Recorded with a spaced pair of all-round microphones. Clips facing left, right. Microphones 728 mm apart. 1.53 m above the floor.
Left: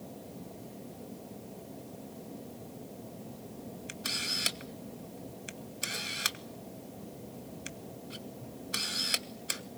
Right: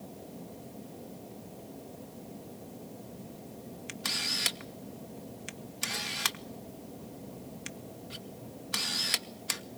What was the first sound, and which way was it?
A camera shutter, 35° right (ahead or behind).